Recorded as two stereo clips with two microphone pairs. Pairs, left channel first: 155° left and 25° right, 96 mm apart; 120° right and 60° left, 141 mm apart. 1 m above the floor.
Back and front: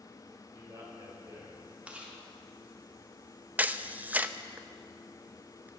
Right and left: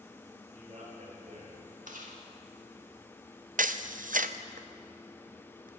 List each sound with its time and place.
0.5 s a man speaking: 20° left, 5 m
1.9 s chewing: 50° left, 2 m
3.6 s a camera shutter: 45° left, 0.5 m